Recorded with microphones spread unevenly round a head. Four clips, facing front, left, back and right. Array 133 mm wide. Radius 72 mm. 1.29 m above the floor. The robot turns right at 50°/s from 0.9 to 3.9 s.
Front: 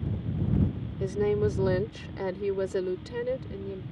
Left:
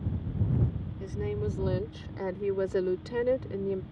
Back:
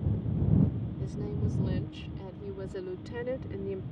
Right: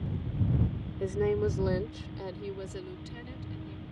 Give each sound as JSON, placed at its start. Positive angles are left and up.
{"t": 1.0, "sound": "a woman speaking", "azimuth_deg": -40}